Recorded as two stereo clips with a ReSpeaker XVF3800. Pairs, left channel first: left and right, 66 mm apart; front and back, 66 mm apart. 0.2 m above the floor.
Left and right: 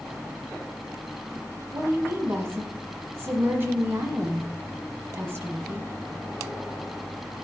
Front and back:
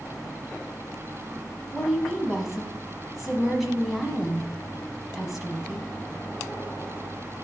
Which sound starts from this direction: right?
A woman speaking, at 1.7 s.